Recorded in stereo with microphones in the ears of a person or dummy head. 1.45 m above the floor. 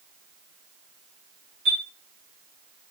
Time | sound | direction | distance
1.6 | a chime | 65° right (ahead or behind) | 0.9 m